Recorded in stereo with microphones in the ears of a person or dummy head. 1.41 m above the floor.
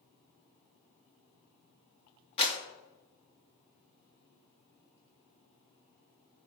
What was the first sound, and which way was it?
A clap, 35° left (ahead or behind).